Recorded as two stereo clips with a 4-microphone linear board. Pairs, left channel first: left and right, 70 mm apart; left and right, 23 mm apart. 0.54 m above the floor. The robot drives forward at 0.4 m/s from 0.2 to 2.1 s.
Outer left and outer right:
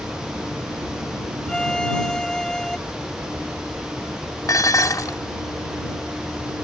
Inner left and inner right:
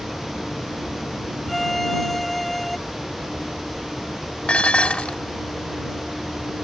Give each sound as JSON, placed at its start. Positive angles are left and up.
{"t": 1.5, "sound": "a violin", "side_deg": 10}
{"t": 4.5, "sound": "dishes clattering", "side_deg": 55}